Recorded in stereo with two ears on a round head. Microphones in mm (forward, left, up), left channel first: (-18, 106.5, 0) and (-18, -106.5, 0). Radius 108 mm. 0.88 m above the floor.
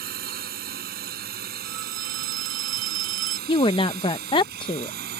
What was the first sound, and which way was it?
A drone, 40° right (ahead or behind).